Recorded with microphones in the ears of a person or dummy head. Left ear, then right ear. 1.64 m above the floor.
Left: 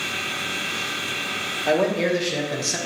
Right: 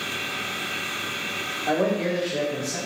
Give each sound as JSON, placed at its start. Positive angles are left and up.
{"t": 1.7, "sound": "a man speaking", "side_deg": 80, "distance_m": 1.2}